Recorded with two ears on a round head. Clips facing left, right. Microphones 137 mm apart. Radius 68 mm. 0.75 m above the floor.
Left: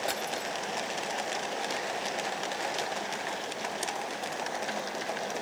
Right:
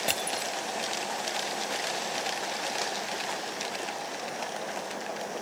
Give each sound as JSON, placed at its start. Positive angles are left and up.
{"t": 0.1, "sound": "crushing", "side_deg": -35}